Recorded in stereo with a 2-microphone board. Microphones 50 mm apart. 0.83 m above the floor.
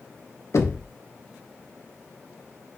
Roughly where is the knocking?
Left.